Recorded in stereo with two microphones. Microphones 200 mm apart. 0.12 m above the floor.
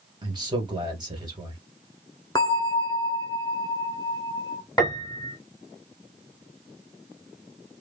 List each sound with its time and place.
0.2 s a man speaking: 25° right (ahead or behind), 2.5 m
2.4 s a bell: 20° left (ahead or behind), 0.7 m
4.8 s a piano: 20° left (ahead or behind), 1.3 m